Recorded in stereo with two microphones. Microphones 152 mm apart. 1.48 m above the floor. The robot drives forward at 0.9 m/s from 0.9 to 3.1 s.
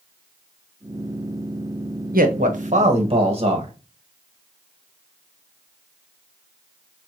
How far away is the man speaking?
About 1.1 m.